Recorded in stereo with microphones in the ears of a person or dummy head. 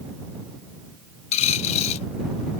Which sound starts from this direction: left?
A dropped coin, at 1.3 s.